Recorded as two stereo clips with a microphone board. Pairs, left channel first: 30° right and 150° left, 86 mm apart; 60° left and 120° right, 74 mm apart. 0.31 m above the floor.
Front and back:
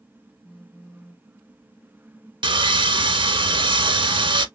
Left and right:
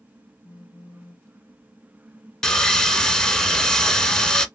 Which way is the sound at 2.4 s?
140° left.